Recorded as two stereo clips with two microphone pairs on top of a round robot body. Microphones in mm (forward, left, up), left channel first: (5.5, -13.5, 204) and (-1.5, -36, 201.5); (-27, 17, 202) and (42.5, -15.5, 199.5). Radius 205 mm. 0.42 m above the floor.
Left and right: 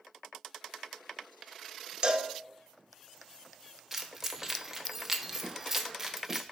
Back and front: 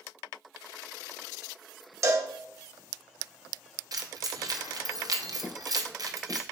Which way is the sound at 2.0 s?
65° right.